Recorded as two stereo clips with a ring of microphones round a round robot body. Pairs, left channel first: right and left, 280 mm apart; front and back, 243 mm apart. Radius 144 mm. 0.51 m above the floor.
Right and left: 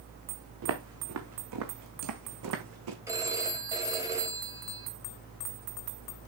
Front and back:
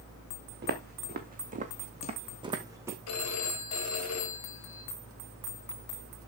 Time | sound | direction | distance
0.6 | footsteps | 130° left | 2.5 m
3.1 | a phone ringing | 10° left | 2.5 m